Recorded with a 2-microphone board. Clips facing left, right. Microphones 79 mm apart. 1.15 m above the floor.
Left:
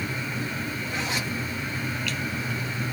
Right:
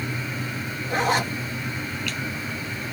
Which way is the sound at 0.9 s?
55° right (ahead or behind).